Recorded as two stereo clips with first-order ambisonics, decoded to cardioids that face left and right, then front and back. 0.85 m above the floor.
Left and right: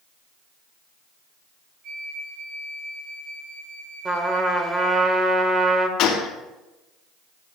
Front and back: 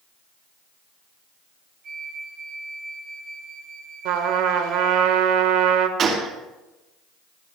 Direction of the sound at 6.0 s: 130° left.